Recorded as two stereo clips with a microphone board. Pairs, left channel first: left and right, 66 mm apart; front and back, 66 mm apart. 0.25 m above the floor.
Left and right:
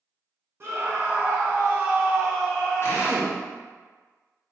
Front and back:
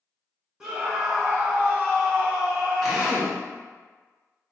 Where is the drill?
90° left, 1.3 m.